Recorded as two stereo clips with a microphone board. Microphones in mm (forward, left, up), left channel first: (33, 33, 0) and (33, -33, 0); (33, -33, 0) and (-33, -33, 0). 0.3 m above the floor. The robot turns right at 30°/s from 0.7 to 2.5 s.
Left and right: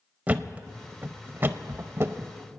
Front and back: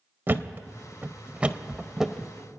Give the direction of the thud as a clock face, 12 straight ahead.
5 o'clock.